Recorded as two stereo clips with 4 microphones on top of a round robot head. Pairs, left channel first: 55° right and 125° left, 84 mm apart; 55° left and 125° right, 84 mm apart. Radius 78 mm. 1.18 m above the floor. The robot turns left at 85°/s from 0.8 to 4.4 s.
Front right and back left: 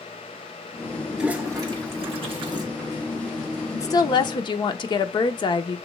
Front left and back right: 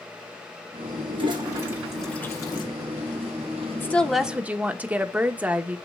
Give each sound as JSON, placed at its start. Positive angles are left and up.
{"t": 1.1, "sound": "a toilet flushing", "azimuth_deg": -145, "distance_m": 1.4}
{"t": 3.7, "sound": "a woman speaking", "azimuth_deg": 0, "distance_m": 1.0}